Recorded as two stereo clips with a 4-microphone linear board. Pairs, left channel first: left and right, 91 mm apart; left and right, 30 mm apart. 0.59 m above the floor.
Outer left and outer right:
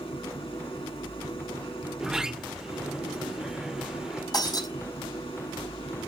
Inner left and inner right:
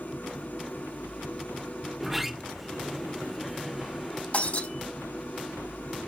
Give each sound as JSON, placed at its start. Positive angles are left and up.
{"t": 0.0, "sound": "an engine running", "side_deg": 80, "distance_m": 5.0}
{"t": 2.0, "sound": "a sliding door", "side_deg": -5, "distance_m": 0.6}
{"t": 4.3, "sound": "breaking glass", "side_deg": 45, "distance_m": 4.0}